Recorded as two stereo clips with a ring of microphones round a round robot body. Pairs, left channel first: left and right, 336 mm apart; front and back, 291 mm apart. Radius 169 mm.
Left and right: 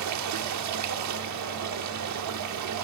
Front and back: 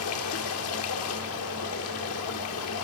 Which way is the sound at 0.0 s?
50° right.